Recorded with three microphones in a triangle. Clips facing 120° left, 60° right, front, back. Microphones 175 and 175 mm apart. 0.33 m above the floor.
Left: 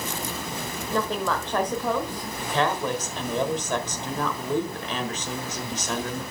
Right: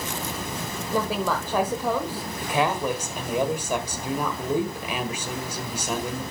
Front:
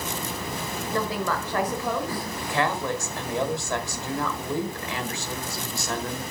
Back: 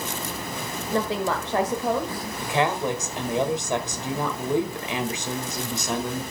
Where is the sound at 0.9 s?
135° right, 1.1 m.